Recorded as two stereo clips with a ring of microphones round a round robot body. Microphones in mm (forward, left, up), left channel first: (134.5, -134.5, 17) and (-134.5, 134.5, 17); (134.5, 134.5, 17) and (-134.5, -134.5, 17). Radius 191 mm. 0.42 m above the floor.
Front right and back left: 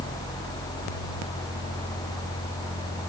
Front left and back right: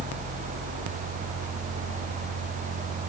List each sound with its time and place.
Only background noise.